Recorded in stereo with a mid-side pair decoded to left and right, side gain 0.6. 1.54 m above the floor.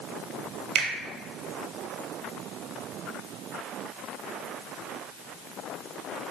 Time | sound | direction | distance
0.8 | a finger snap | 60° right | 1.3 m